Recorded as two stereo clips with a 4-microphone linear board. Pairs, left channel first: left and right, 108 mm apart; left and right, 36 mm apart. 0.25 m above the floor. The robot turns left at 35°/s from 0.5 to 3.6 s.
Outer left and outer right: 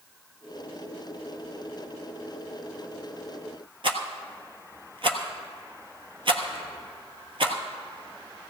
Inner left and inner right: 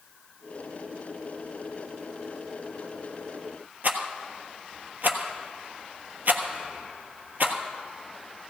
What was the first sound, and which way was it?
A rattle, 60° right (ahead or behind).